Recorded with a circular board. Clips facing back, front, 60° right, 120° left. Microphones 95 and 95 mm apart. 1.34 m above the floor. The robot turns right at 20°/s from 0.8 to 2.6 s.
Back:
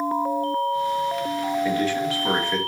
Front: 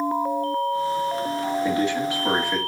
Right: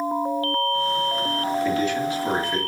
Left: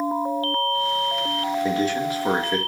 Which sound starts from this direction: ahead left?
A man speaking, at 1.6 s.